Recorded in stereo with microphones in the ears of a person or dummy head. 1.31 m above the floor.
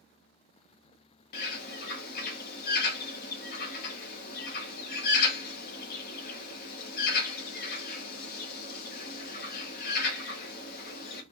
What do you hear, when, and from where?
1.3 s a bird: 55° left (ahead or behind), 0.9 m